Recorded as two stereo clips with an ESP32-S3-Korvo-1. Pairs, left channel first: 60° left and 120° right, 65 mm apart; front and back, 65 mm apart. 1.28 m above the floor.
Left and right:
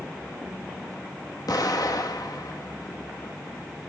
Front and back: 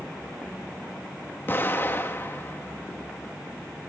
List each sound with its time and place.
1.5 s an explosion: 55° left, 1.6 m